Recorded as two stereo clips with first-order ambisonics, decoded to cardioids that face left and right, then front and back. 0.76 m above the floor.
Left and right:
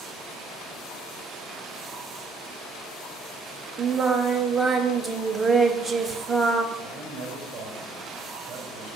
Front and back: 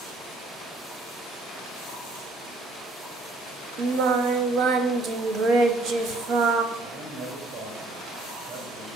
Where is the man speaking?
155° right, 4 m.